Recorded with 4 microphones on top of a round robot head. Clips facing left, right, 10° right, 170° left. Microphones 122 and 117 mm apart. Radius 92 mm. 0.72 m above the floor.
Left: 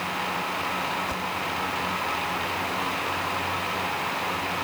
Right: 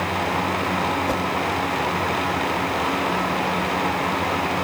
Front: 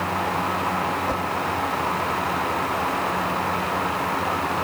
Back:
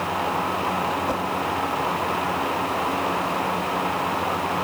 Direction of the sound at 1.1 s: 110° right.